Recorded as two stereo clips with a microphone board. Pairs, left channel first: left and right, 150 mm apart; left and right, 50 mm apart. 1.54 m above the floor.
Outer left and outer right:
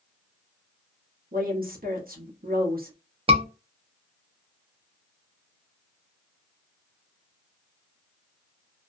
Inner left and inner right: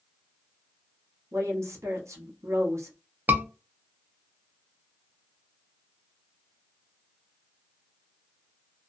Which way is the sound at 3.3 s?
40° right (ahead or behind).